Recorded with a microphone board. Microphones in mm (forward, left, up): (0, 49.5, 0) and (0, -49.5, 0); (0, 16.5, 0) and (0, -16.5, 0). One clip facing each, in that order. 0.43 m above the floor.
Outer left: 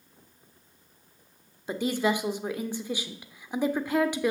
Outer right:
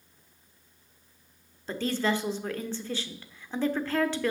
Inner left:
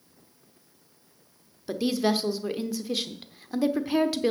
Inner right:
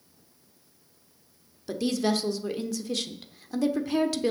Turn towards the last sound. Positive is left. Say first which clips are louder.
# outer left 2 dB, inner left 1 dB
turn(degrees=15)  # may be behind; listen again after turning